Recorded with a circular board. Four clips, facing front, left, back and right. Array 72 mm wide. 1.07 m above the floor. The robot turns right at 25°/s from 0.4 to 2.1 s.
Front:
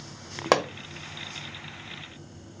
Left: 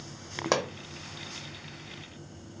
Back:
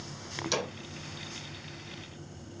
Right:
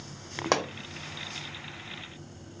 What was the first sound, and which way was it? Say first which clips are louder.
A pop: right 1 dB, front 11 dB; 5° right.